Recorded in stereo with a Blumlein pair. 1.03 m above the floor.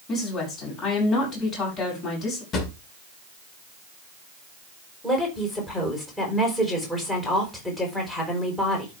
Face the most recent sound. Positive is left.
turn(degrees=5)